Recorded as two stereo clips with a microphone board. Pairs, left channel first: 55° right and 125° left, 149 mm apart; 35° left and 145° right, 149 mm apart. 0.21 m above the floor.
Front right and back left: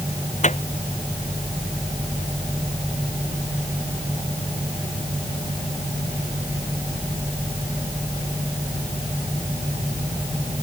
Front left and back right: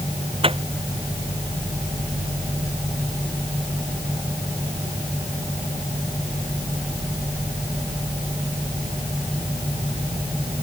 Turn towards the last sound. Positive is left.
turn(degrees=-95)